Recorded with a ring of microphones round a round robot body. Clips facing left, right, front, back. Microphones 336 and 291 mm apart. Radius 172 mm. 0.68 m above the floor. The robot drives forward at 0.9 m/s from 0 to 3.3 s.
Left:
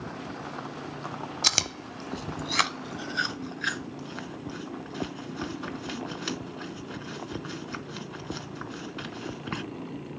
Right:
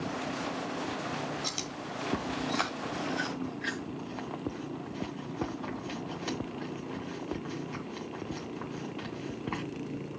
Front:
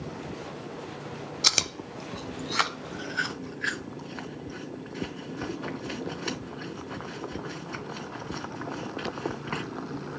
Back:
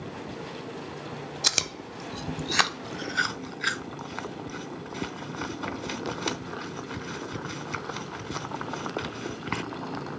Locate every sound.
1.4 s chewing: 80° left, 0.9 m; by 9.6 s 150° left, 1.8 m